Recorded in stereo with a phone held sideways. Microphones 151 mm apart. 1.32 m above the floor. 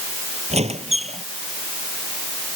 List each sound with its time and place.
0.5 s a squeak: 45° right (ahead or behind)